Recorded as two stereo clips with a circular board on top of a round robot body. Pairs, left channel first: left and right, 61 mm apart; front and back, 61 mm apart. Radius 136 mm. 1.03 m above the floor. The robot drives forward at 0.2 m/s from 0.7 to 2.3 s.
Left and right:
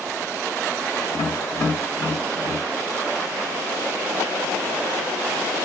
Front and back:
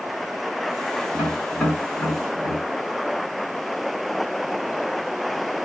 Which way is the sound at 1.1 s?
75° left.